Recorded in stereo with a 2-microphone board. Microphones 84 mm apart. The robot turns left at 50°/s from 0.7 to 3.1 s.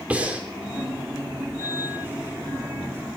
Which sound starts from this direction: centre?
Breathing, at 0.1 s.